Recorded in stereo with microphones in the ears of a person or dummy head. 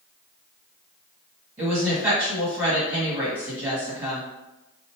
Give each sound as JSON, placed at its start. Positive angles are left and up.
{"t": 1.6, "sound": "a woman speaking", "side_deg": -5, "distance_m": 1.9}